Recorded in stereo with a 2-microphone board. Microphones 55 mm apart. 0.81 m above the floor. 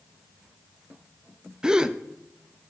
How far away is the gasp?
About 0.6 m.